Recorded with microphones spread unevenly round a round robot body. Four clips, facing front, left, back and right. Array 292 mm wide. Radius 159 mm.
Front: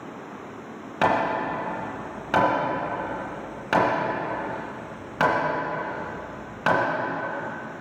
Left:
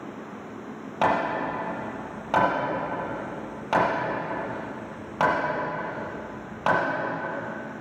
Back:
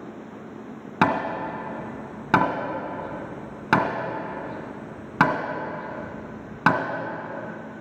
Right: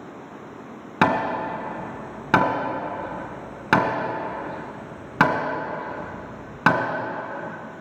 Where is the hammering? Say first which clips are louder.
Right 2 dB, front 1 dB; 135° right, 1.7 m.